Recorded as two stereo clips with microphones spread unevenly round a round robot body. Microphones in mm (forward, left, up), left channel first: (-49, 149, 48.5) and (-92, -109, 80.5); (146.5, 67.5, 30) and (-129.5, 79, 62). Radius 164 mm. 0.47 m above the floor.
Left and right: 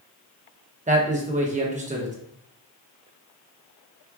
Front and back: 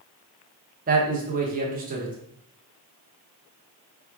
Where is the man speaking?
145° right, 0.9 m.